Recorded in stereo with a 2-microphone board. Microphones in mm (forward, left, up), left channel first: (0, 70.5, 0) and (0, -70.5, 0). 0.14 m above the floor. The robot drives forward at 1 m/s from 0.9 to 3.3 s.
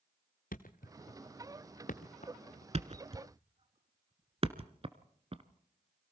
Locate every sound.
0.5 s a thud: 80° left, 1.6 m; by 2.6 s 45° left (ahead or behind), 2 m
2.7 s a thud: 50° right (ahead or behind), 0.9 m; by 5.4 s 45° right (ahead or behind), 0.9 m